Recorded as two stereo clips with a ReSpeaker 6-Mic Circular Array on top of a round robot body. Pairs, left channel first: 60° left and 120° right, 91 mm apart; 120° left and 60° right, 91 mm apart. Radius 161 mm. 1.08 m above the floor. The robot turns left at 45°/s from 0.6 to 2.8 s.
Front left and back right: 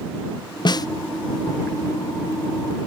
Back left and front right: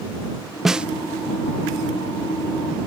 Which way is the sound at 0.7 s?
25° left.